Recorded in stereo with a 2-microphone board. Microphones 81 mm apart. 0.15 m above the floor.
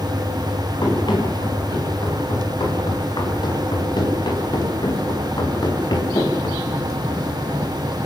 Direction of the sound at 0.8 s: 65° left (ahead or behind).